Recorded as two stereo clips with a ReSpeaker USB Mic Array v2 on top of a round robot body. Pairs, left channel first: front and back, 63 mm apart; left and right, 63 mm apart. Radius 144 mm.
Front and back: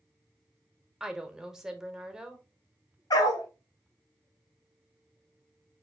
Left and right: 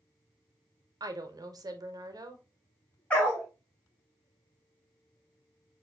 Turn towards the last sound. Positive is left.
turn(degrees=20)